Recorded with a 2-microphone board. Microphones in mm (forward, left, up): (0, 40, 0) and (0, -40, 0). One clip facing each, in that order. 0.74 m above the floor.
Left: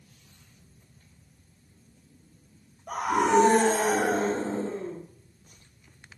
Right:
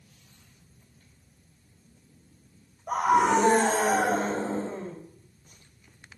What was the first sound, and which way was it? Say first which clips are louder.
A scream: right 2 dB; 20° right (ahead or behind).